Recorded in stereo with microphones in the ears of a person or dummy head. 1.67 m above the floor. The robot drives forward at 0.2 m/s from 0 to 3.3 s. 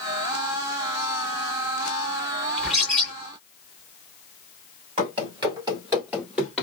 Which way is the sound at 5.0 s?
25° right (ahead or behind).